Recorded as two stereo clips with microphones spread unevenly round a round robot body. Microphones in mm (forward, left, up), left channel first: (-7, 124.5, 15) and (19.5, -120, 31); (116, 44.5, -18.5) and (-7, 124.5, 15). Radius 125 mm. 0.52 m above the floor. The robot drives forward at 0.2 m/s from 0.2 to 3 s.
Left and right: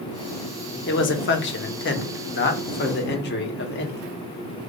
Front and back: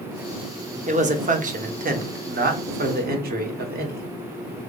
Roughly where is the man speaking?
Left.